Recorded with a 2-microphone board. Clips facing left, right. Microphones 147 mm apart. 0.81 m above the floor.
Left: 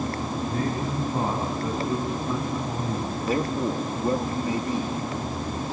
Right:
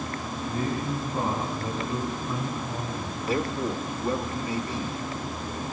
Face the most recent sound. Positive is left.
turn(degrees=40)  # may be behind; listen again after turning